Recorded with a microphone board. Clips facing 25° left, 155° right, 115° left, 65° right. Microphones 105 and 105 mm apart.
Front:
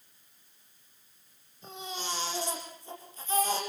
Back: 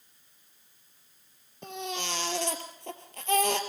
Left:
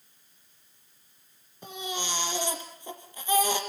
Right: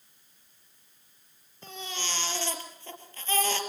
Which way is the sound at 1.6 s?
175° right.